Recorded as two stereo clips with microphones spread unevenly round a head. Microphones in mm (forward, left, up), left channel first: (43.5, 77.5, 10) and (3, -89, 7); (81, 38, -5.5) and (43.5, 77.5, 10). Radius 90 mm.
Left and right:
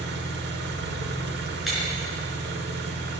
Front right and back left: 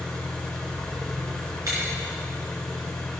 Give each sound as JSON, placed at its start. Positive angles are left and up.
{"t": 0.0, "sound": "an engine running", "azimuth_deg": -135, "distance_m": 1.3}
{"t": 1.7, "sound": "breaking glass", "azimuth_deg": 165, "distance_m": 4.5}